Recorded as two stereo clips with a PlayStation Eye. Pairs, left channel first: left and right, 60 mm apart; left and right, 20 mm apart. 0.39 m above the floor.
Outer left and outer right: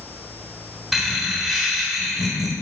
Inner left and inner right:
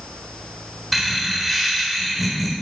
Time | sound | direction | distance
0.9 | laughter | 5° right (ahead or behind) | 1.0 m